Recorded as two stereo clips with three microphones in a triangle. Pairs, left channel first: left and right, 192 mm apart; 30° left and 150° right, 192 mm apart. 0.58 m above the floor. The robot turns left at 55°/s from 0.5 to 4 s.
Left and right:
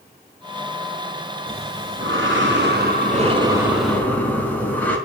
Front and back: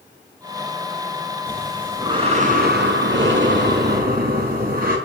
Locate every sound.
1.5 s breathing: 50° right, 5 m; by 5.0 s 170° left, 5 m